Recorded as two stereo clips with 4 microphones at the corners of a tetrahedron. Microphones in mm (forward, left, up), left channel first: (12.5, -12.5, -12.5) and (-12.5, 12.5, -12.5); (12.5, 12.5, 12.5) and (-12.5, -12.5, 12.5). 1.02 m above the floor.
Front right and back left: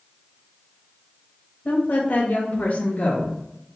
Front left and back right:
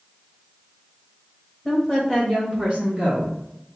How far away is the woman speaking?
About 1.4 m.